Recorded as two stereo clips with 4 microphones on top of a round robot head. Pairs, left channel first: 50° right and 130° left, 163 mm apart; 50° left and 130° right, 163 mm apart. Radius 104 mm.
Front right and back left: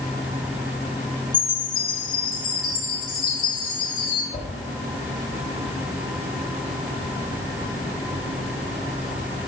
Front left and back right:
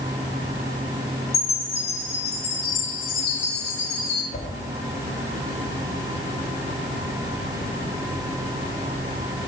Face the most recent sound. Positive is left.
turn(degrees=5)